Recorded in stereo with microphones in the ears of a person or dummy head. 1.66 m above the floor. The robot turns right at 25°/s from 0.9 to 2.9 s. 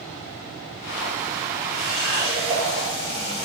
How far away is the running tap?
About 1.2 m.